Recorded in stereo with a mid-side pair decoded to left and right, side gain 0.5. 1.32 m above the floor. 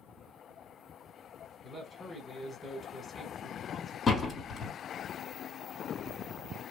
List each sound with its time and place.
1.6 s a man speaking: 40° left, 1.5 m
4.1 s a door slam: 40° left, 1.6 m